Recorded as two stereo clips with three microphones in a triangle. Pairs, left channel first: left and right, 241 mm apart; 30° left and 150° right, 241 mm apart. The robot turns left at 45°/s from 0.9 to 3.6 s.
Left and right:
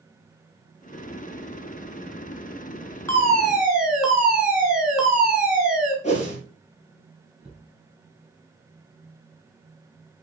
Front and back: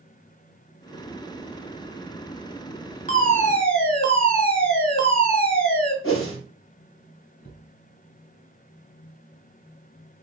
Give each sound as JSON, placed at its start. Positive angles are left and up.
{"t": 3.1, "sound": "a fire alarm", "azimuth_deg": 15, "distance_m": 2.5}
{"t": 6.0, "sound": "a whoosh", "azimuth_deg": 35, "distance_m": 4.0}
{"t": 7.4, "sound": "a cupboard door", "azimuth_deg": -5, "distance_m": 3.5}